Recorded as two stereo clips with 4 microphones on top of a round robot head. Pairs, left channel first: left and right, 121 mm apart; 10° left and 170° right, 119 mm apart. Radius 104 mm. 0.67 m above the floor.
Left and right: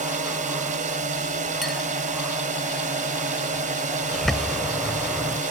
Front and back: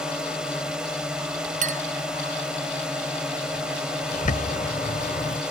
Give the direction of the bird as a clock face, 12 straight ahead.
12 o'clock.